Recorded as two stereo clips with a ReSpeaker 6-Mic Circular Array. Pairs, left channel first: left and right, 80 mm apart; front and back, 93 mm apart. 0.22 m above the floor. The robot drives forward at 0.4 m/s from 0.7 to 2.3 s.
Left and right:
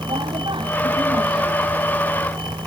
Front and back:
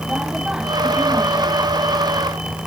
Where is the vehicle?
100° right.